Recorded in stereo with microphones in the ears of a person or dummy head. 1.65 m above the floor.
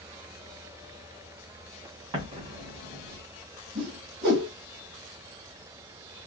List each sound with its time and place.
2.1 s an explosion: 35° right (ahead or behind), 2 m
3.8 s a whoosh: 65° right (ahead or behind), 1.7 m